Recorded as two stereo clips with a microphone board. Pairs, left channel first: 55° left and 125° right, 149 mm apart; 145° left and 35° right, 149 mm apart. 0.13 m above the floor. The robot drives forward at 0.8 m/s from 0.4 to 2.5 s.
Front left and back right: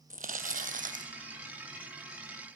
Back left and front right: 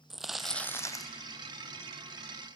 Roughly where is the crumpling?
Behind right.